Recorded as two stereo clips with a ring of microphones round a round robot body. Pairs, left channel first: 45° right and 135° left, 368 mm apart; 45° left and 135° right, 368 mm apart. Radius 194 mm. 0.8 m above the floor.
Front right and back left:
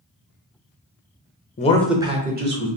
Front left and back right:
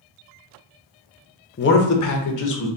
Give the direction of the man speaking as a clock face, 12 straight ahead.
12 o'clock.